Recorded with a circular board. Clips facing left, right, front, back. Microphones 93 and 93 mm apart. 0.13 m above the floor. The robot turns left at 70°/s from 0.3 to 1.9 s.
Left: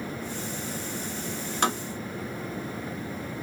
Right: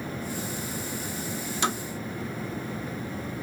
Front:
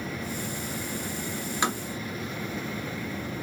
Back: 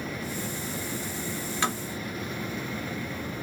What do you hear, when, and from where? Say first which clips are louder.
1.6 s tapping: left 2 dB, front 1 dB; 70° left, 1.3 m; by 1.8 s 55° left, 1.3 m